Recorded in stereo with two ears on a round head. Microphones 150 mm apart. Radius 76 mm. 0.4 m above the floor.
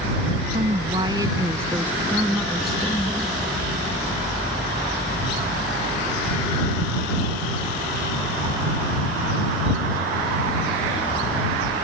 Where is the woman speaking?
30° right (ahead or behind); by 3.4 s 10° left (ahead or behind).